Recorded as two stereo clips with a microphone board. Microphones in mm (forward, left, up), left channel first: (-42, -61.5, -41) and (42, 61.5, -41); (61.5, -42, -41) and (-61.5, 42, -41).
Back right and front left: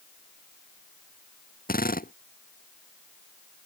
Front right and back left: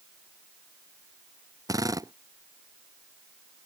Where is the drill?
145° right.